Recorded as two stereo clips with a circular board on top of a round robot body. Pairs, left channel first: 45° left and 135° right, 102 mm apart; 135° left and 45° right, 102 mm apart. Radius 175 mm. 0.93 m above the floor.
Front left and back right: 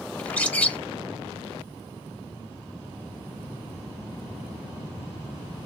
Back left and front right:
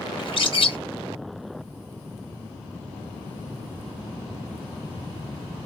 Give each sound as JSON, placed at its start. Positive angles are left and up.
{"t": 0.2, "sound": "a bird", "azimuth_deg": 120, "distance_m": 1.0}